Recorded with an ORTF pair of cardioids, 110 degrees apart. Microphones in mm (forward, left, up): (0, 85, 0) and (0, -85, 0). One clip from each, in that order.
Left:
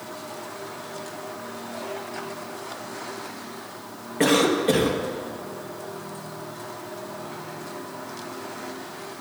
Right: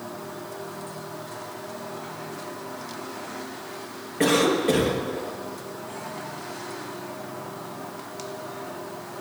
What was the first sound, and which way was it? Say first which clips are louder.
A cough: left 1 dB; 10° left.